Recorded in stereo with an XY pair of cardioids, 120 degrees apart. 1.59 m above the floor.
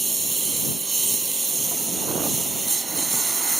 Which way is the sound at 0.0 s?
20° right.